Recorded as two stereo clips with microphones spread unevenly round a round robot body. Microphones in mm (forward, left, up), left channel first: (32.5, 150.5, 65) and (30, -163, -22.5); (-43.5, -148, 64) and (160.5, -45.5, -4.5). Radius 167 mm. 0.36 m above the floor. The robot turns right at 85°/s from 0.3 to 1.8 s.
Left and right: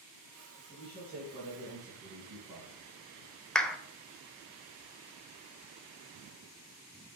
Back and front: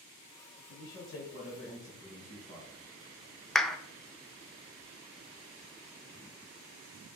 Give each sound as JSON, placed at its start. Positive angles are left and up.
{"t": 0.7, "sound": "a man speaking", "azimuth_deg": 175, "distance_m": 3.0}
{"t": 3.5, "sound": "a clap", "azimuth_deg": -30, "distance_m": 0.6}